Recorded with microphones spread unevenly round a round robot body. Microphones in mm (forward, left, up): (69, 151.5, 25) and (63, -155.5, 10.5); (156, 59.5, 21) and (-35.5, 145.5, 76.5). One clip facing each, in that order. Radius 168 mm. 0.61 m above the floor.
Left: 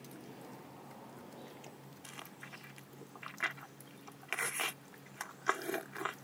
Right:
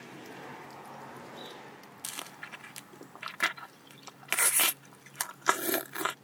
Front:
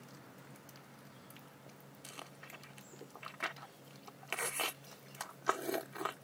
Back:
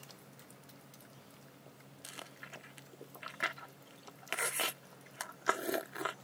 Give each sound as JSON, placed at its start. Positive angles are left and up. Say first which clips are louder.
{"t": 2.0, "sound": "chewing", "louder": "right 3 dB, back 2 dB", "azimuth_deg": -120}